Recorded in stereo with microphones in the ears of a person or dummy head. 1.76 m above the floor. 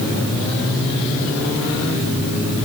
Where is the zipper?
I don't hear a zipper.